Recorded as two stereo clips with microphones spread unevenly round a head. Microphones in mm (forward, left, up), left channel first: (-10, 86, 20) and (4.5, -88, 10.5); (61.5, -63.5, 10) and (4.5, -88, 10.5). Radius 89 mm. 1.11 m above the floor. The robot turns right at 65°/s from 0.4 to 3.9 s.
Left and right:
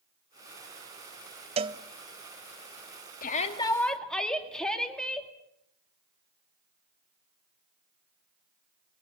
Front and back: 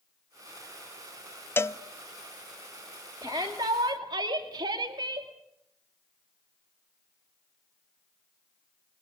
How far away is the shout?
About 2.5 m.